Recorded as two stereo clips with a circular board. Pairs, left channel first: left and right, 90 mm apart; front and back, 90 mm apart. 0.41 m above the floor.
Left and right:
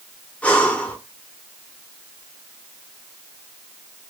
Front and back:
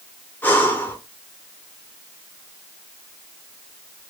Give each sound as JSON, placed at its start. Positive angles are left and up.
{"t": 0.4, "sound": "breathing", "azimuth_deg": 35, "distance_m": 0.9}